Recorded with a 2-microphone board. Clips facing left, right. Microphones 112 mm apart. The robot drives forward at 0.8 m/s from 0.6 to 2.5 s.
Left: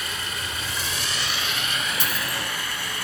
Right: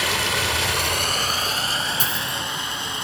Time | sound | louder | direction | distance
0.0 | running water | right 9 dB | 80° right | 0.7 m
2.0 | a dropped coin | right 1 dB | 45° right (ahead or behind) | 3 m